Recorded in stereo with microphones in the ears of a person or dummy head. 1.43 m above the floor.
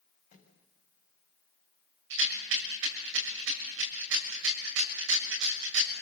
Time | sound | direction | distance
0.3 | a microwave | 45° left (ahead or behind) | 8 m
2.1 | a rattle | 70° right (ahead or behind) | 6.5 m